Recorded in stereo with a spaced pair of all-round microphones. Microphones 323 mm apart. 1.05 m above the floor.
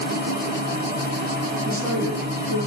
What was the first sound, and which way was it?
A machine running, 30° right (ahead or behind).